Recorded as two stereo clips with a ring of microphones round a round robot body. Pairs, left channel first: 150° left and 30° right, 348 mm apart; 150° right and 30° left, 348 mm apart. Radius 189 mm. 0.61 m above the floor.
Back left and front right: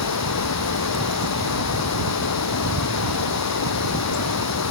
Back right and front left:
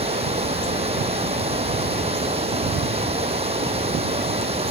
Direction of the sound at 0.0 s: 105° left.